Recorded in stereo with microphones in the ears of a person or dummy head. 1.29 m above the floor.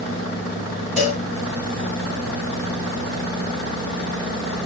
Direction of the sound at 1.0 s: 5° left (ahead or behind).